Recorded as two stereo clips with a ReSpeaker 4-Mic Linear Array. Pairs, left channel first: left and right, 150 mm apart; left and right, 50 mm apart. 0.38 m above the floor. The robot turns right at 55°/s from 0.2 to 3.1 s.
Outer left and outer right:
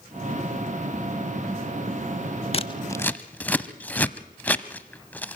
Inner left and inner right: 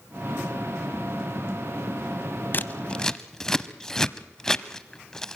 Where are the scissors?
40° left (ahead or behind), 0.6 m; by 5.4 s 10° left (ahead or behind), 0.6 m.